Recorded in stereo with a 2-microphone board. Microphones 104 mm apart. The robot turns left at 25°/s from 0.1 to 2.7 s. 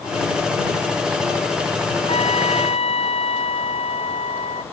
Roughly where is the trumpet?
Left.